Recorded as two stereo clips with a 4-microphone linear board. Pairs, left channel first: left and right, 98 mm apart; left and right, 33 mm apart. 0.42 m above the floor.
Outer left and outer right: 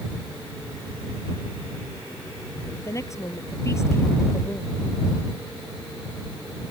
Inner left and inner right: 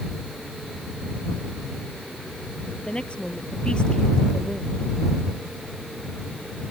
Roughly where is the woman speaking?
Left.